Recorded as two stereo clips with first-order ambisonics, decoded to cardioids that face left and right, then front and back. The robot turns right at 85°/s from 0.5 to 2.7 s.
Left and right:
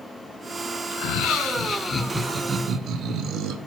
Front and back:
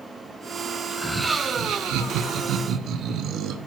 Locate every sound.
0.9 s laughter: 70° left, 0.6 m; by 3.6 s 135° right, 0.6 m